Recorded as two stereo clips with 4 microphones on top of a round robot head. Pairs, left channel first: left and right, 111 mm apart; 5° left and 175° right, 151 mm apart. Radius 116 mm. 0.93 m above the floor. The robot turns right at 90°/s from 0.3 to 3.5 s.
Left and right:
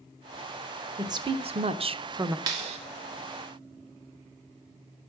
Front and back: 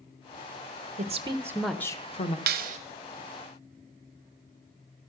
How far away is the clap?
About 0.7 m.